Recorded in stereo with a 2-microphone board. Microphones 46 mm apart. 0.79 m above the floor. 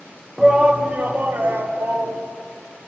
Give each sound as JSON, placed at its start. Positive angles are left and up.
{"t": 0.4, "sound": "a shout", "side_deg": -10, "distance_m": 0.7}